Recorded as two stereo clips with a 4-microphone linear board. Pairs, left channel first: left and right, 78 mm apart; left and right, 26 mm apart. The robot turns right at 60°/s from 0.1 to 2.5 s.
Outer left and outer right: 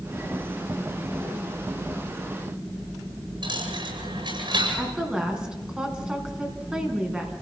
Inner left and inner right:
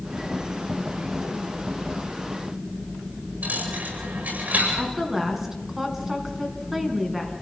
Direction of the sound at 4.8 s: 10° right (ahead or behind).